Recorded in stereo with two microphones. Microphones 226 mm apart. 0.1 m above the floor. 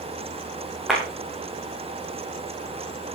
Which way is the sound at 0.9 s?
Centre (ahead or behind).